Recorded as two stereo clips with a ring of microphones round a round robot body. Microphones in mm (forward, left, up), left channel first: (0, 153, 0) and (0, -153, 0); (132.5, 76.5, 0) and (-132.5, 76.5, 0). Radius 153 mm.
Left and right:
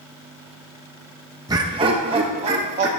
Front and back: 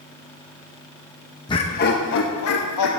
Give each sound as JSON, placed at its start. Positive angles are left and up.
{"t": 1.5, "sound": "laughter", "azimuth_deg": -35, "distance_m": 0.7}